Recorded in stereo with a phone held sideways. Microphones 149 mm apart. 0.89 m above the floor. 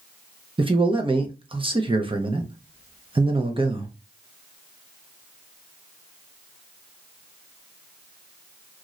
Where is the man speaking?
35° right (ahead or behind), 0.6 m.